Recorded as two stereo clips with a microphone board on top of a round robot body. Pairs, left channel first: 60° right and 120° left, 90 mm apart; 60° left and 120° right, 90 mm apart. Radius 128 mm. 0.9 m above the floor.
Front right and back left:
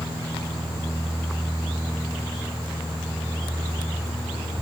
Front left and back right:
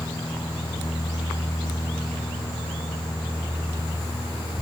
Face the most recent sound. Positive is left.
No sound to turn to.